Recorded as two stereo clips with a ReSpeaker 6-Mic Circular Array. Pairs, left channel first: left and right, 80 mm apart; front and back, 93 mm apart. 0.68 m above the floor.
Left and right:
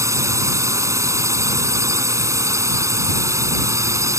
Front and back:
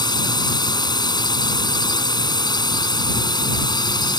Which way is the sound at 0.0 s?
40° right.